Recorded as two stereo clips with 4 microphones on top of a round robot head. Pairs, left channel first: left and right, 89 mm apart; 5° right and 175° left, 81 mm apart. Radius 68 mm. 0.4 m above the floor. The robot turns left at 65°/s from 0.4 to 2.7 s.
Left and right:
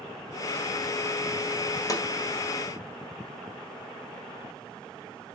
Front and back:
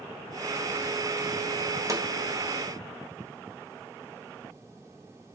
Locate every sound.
1.9 s a snare drum: 135° left, 1.8 m; by 2.0 s 125° left, 1.8 m